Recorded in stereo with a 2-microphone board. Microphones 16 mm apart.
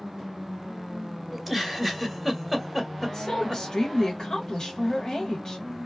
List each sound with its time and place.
1.3 s a giggle: 5° right (ahead or behind), 1.0 m
3.0 s a woman speaking: 35° left (ahead or behind), 1.3 m